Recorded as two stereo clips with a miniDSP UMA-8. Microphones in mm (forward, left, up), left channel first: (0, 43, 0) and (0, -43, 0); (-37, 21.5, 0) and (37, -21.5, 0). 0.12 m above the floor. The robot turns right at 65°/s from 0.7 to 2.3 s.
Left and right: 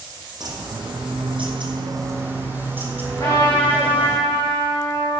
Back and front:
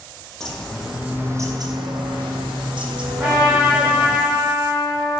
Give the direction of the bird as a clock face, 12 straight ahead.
4 o'clock.